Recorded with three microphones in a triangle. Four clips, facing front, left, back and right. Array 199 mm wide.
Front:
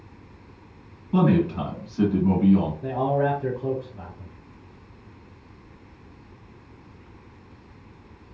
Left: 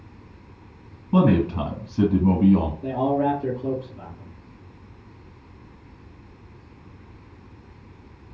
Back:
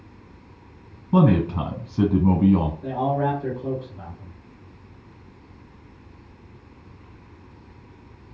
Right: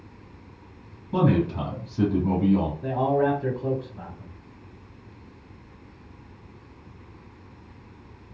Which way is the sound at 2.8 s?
40° right.